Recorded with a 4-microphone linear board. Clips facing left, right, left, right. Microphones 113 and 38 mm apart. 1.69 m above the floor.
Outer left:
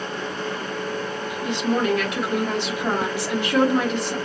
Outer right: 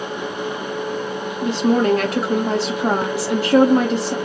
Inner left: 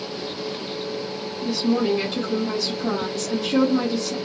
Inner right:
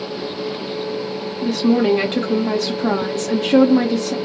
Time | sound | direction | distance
1.4 | a woman speaking | 40° right (ahead or behind) | 0.6 m